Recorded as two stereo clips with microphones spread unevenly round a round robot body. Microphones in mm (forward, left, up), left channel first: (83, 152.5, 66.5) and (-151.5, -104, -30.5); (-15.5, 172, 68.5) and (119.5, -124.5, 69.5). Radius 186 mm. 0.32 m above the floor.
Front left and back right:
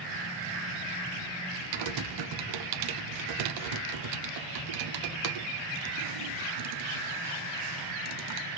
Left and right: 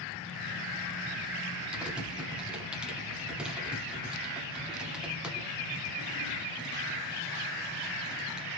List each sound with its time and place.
1.7 s typing on a keyboard: 155° right, 0.8 m